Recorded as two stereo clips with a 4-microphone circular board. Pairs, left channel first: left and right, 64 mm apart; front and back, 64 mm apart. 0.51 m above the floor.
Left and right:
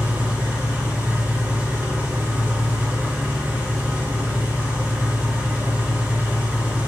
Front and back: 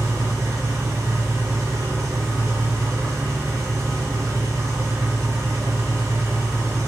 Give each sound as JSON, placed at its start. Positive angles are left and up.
{"t": 0.0, "sound": "an engine running", "azimuth_deg": -160, "distance_m": 1.9}